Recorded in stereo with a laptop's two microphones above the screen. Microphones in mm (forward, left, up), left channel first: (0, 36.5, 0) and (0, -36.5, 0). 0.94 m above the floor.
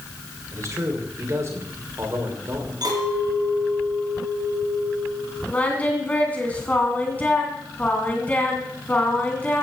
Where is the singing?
20° left (ahead or behind), 2 m.